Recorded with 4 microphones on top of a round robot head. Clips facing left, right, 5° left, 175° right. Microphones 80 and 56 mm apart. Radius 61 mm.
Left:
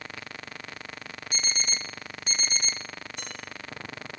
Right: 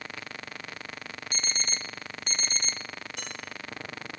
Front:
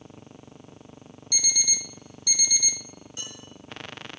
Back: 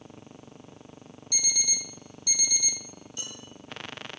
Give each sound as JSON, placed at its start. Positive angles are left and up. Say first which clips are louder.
{"t": 1.3, "sound": "an alarm clock", "louder": "left 2 dB, front 3 dB", "azimuth_deg": 5, "distance_m": 0.5}
{"t": 3.2, "sound": "dishes clattering", "louder": "even, front 1 dB", "azimuth_deg": -70, "distance_m": 7.5}